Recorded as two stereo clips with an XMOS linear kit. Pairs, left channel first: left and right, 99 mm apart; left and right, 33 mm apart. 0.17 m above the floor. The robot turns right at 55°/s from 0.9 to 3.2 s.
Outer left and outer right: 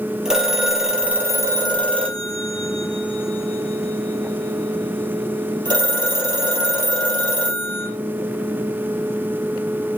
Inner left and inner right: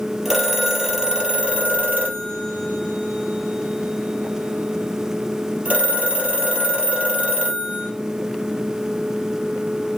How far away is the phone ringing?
About 2.5 m.